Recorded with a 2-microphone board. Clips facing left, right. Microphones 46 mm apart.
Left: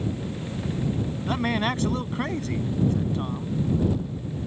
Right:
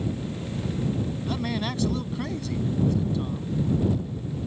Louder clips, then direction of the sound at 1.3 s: Left 7 dB; 45° left (ahead or behind).